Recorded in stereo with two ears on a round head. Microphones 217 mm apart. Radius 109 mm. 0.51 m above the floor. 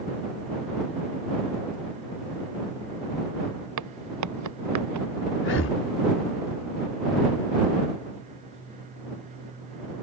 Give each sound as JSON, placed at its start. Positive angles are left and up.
{"t": 3.8, "sound": "footsteps", "side_deg": -85}
{"t": 5.4, "sound": "breathing", "side_deg": 50}